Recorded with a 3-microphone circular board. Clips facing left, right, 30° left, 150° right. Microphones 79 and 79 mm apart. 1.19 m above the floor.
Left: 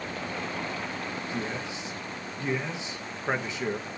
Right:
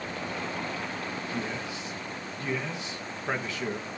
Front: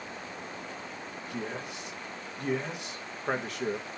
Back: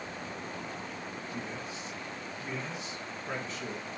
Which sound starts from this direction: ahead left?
A man speaking, at 1.3 s.